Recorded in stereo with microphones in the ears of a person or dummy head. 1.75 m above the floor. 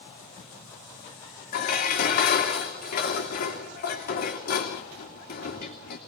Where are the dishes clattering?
50° left (ahead or behind), 2.5 m.